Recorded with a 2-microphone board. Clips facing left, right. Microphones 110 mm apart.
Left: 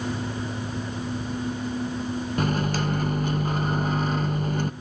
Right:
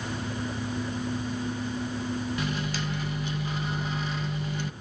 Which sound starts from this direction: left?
A microwave, at 2.4 s.